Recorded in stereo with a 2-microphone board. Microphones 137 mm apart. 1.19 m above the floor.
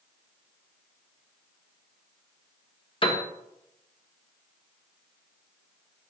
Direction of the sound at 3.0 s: 40° left (ahead or behind).